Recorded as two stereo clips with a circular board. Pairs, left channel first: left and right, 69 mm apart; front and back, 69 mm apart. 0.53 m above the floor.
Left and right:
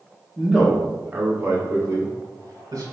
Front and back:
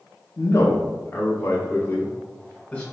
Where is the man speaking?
5° left, 0.8 m; by 2.8 s 65° right, 1.6 m.